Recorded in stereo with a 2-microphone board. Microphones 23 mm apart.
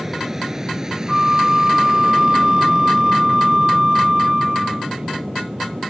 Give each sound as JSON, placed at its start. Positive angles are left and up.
{"t": 0.0, "sound": "an aircraft", "side_deg": -20}
{"t": 1.1, "sound": "a flute", "side_deg": -20}